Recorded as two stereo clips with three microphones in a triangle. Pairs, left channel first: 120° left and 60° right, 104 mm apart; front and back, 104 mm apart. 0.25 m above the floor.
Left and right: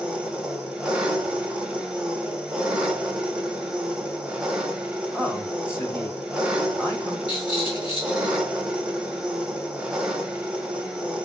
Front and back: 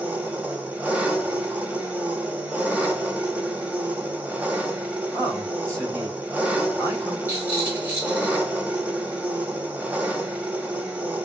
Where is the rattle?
110° left, 2.5 m.